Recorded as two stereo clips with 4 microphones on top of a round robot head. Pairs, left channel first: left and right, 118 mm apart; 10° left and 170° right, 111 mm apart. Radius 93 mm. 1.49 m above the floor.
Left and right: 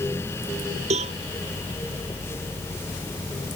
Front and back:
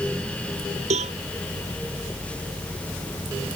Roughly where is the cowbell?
Behind right.